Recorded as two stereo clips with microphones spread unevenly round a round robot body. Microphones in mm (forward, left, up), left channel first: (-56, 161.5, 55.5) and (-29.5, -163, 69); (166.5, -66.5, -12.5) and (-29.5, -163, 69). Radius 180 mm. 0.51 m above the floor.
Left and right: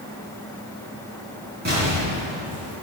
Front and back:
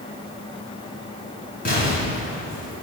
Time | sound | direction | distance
1.6 | an explosion | 20° right | 5.5 m